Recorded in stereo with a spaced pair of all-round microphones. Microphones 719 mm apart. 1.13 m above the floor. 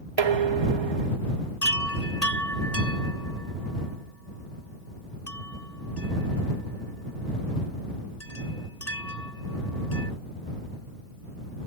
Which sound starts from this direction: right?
Dishes clattering, at 0.2 s.